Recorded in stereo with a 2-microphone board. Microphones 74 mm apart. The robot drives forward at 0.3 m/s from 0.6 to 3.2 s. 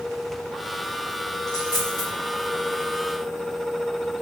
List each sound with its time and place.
1.5 s a dropped coin: 60° left (ahead or behind), 4 m